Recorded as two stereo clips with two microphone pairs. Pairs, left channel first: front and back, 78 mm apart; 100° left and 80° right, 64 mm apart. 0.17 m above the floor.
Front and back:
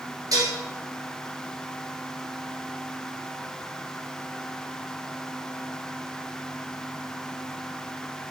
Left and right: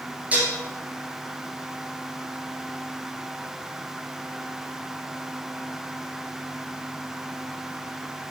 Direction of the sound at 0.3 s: 145° right.